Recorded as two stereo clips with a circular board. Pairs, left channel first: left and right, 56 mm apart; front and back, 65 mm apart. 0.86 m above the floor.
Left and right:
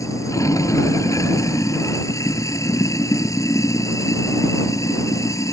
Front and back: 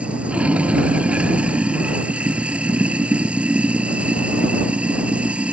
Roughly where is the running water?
Left.